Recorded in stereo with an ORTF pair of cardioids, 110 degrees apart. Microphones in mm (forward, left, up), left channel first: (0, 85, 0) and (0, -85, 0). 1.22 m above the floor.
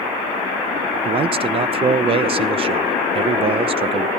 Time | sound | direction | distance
1.1 | a man speaking | 35° right | 0.7 m